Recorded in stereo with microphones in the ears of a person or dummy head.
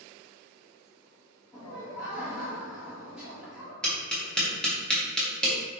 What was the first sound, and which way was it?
Laughter, 10° right (ahead or behind).